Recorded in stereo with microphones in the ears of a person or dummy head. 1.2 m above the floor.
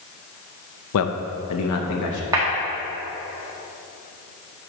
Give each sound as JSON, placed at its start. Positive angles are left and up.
{"t": 0.9, "sound": "a man speaking", "side_deg": 70, "distance_m": 0.7}
{"t": 2.3, "sound": "a clap", "side_deg": -15, "distance_m": 1.7}